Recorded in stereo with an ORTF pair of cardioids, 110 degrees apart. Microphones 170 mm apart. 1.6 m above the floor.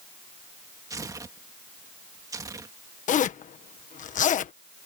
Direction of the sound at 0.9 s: 20° right.